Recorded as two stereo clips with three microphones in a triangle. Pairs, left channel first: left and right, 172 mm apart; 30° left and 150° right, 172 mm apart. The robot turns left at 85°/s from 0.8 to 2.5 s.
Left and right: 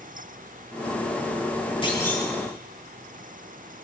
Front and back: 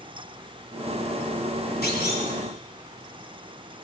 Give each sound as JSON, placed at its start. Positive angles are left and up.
{"t": 1.8, "sound": "a clunk", "azimuth_deg": 35, "distance_m": 2.5}